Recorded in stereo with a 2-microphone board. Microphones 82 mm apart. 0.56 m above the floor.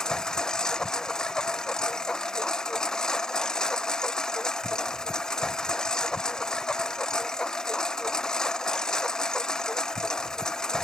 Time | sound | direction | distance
0.0 | a lawn mower | 10° left (ahead or behind) | ?